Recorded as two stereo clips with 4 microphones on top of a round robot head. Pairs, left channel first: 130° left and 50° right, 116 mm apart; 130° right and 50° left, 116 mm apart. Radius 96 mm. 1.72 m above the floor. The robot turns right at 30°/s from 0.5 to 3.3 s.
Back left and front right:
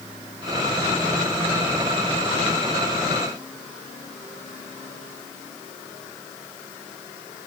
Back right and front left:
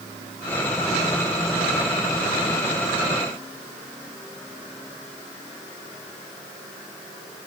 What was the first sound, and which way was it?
Only background noise.